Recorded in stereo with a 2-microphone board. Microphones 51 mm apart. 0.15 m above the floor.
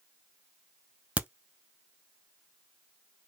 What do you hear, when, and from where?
1.2 s a crack: 25° right (ahead or behind), 0.6 m